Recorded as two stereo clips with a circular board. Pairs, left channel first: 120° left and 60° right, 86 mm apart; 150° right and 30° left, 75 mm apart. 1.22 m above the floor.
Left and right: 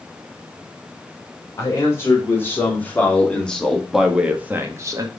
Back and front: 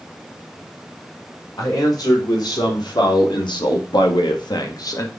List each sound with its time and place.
1.6 s a man speaking: straight behind, 4 m; by 5.1 s 105° right, 1.7 m